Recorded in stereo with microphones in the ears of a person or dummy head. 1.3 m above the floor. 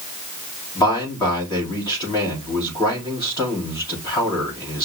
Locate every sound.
0.8 s a man speaking: 25° left (ahead or behind), 3.5 m